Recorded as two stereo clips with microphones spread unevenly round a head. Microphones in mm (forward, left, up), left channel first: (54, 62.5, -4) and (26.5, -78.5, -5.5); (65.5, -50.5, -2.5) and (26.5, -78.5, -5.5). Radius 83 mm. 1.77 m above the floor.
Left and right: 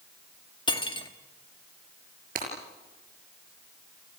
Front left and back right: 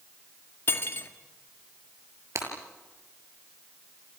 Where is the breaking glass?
140° right, 6 m.